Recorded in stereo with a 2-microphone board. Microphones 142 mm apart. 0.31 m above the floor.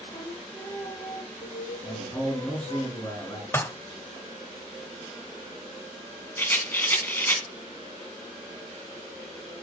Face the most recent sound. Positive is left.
turn(degrees=15)  # may be behind; listen again after turning